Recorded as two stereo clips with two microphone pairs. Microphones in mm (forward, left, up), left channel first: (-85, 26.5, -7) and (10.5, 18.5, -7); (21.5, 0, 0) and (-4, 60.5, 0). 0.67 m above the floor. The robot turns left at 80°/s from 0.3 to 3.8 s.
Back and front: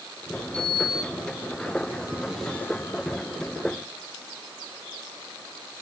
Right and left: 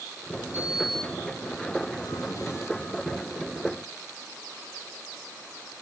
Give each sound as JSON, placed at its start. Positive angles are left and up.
{"t": 0.5, "sound": "a sliding door", "azimuth_deg": 50, "distance_m": 1.3}